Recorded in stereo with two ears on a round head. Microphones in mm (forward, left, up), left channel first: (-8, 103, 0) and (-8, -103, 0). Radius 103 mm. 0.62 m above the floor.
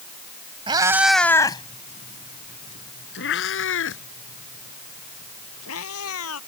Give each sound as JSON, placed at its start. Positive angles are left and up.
{"t": 0.7, "sound": "a cat meowing", "side_deg": -20}